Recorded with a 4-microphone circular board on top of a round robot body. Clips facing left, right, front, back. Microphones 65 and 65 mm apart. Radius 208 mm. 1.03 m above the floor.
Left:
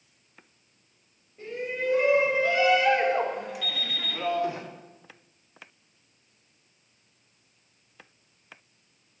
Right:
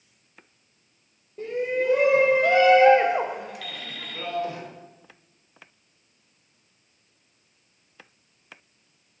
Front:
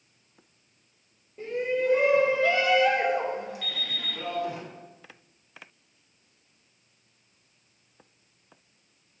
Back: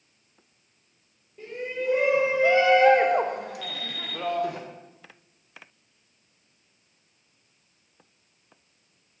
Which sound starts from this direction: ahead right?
An alarm clock, at 3.6 s.